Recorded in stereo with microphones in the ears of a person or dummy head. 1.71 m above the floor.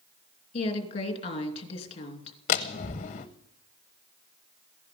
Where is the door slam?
30° left (ahead or behind), 0.8 m.